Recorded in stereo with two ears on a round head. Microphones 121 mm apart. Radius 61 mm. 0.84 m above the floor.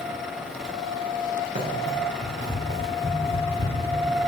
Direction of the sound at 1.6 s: 70° right (ahead or behind).